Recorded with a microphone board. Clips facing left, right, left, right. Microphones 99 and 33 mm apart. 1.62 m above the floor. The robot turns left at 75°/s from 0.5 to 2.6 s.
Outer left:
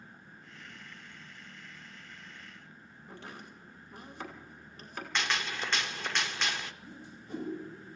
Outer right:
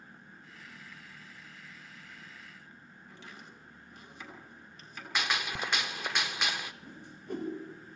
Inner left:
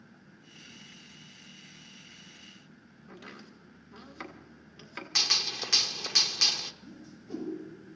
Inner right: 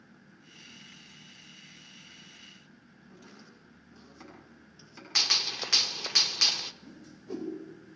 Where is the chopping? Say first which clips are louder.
Outer left 4 dB, inner left 6 dB; 45° left (ahead or behind), 3.5 m.